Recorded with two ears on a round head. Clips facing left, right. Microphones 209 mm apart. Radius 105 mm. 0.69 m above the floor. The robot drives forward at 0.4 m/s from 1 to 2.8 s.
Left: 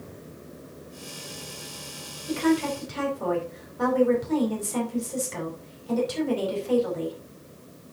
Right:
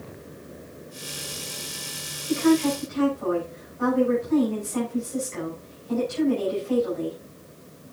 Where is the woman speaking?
65° left (ahead or behind), 4.5 m; by 7.2 s 70° left (ahead or behind), 4.5 m.